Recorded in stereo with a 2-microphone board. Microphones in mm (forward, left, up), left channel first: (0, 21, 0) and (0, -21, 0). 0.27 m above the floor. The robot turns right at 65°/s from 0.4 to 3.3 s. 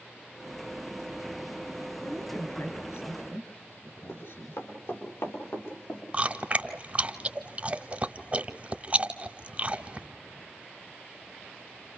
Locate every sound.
2.0 s a woman speaking: 15° left (ahead or behind), 4 m; by 4.6 s 75° left (ahead or behind), 4 m
4.1 s running footsteps: 80° left, 8 m; by 6.0 s 65° left (ahead or behind), 7.5 m
6.1 s chewing: 30° right (ahead or behind), 1.0 m